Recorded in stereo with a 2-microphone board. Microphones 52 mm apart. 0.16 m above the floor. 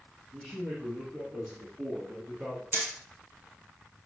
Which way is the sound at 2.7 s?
40° right (ahead or behind).